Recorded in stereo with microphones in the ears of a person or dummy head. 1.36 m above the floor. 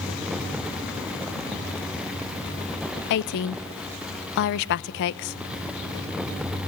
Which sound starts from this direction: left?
A woman speaking, at 3.1 s.